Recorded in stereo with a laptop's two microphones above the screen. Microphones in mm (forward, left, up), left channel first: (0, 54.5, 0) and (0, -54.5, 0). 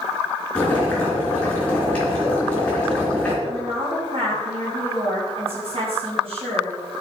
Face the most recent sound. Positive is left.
turn(degrees=-60)  # may be behind; listen again after turning